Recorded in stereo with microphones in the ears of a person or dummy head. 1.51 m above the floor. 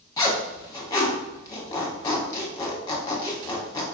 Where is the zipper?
20° left (ahead or behind), 0.9 m.